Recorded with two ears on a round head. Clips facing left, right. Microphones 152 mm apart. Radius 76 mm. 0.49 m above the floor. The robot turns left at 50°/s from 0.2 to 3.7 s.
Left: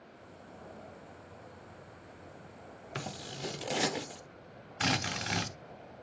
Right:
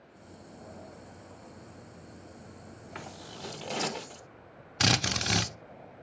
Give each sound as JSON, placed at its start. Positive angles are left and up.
{"t": 3.0, "sound": "scissors", "azimuth_deg": 50, "distance_m": 0.6}
{"t": 4.8, "sound": "a drill", "side_deg": -50, "distance_m": 0.6}